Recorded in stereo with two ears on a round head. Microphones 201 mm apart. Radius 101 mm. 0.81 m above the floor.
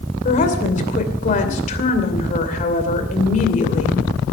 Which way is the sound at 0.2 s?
35° left (ahead or behind).